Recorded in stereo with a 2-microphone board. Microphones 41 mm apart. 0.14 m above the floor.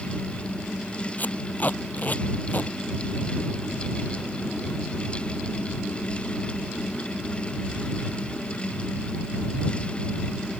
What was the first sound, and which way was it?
Tape being pulled, 45° left (ahead or behind).